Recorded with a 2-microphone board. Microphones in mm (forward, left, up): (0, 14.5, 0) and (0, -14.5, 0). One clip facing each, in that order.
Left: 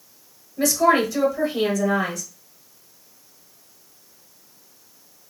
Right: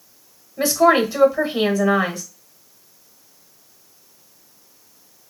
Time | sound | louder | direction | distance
0.6 | a woman speaking | right 3 dB | 25° right (ahead or behind) | 0.9 m